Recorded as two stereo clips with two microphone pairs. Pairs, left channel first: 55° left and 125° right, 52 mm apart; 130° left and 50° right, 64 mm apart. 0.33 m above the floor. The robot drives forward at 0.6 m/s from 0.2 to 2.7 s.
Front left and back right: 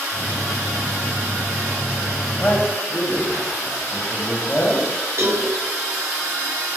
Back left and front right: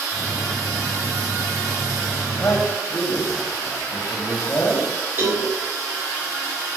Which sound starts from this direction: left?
A man speaking, at 2.4 s.